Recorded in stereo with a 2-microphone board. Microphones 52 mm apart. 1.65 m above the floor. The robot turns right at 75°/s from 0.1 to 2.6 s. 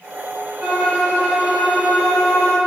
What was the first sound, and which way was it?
A violin, 50° right.